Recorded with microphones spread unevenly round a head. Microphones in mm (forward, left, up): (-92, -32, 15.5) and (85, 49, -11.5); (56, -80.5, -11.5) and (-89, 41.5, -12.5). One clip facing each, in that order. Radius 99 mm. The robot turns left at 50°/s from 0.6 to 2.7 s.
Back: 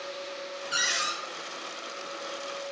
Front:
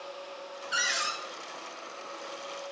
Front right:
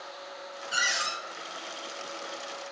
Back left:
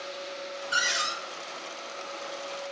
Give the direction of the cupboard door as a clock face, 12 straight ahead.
5 o'clock.